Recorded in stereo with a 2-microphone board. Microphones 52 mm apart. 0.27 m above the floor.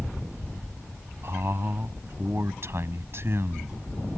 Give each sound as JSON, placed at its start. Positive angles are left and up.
{"t": 1.2, "sound": "a man speaking", "side_deg": -55}